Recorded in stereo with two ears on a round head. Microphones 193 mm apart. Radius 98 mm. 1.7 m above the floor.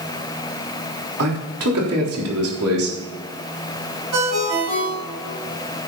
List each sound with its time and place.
1.2 s a man speaking: 85° right, 3.5 m
4.1 s a ringtone: 80° right, 5.5 m